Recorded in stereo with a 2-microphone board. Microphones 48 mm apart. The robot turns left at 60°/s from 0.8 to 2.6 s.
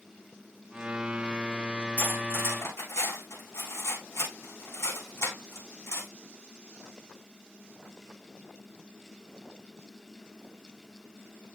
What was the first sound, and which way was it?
Cutlery clinking, 35° left (ahead or behind).